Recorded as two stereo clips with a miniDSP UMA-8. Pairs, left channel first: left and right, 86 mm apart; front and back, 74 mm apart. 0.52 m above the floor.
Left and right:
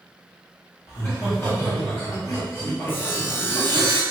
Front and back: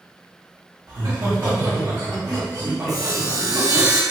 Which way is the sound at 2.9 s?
150° left.